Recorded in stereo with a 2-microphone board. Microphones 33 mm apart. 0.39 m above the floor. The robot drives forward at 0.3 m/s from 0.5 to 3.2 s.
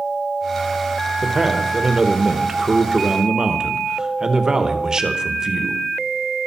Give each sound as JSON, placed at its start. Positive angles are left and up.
{"t": 1.2, "sound": "a man speaking", "side_deg": -20, "distance_m": 1.2}